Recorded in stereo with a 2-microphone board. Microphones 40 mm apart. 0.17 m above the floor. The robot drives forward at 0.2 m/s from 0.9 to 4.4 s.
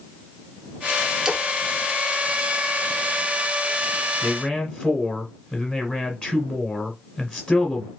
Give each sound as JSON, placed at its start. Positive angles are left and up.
{"t": 1.2, "sound": "a splash", "side_deg": -10, "distance_m": 0.7}
{"t": 4.2, "sound": "a man speaking", "side_deg": 30, "distance_m": 1.5}